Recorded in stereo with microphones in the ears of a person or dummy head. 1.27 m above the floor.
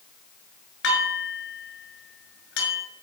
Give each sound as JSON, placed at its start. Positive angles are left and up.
{"t": 0.8, "sound": "dishes clattering", "side_deg": 75, "distance_m": 6.0}